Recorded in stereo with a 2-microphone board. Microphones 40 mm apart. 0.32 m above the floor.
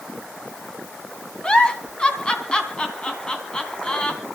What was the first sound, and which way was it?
A giggle, 20° left (ahead or behind).